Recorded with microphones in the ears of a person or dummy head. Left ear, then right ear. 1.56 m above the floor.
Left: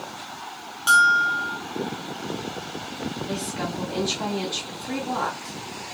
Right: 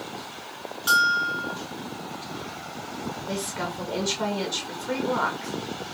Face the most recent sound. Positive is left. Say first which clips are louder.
# right 2 dB
turn(degrees=0)  # may be behind; listen again after turning